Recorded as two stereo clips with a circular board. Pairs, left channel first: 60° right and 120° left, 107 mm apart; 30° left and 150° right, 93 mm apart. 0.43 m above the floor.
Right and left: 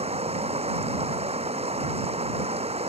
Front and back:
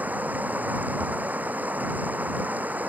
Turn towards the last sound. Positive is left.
turn(degrees=140)